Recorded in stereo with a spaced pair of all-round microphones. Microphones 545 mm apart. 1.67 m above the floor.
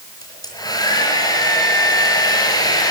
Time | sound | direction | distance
0.2 | a hair dryer | 5° left (ahead or behind) | 5.5 m